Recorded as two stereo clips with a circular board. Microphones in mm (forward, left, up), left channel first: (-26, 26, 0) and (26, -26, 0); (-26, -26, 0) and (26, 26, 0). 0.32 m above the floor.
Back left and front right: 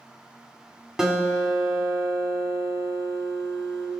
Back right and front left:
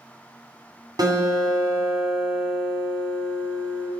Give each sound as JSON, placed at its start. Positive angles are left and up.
{"t": 1.0, "sound": "a guitar", "azimuth_deg": 40, "distance_m": 2.0}